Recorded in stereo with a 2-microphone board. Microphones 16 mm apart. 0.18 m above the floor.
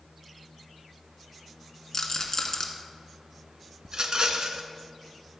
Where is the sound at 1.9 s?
40° left (ahead or behind), 1.2 m.